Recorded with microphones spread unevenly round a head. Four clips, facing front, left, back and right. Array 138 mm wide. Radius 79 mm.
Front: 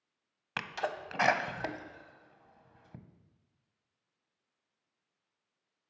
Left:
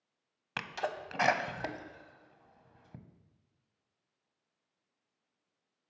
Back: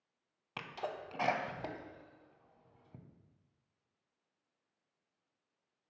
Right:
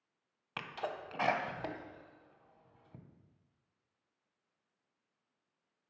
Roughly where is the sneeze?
Ahead.